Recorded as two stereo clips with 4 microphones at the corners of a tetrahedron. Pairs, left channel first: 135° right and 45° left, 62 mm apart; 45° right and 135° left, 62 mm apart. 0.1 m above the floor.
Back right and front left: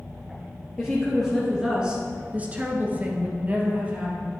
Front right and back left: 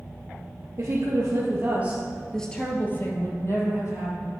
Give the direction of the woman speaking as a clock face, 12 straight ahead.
7 o'clock.